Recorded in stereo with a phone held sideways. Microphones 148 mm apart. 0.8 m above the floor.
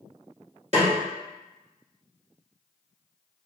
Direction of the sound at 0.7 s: 50° right (ahead or behind).